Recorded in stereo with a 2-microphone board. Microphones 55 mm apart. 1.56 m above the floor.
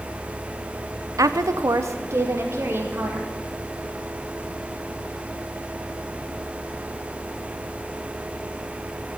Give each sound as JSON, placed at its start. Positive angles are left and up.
{"t": 1.2, "sound": "a woman speaking", "side_deg": -75, "distance_m": 0.6}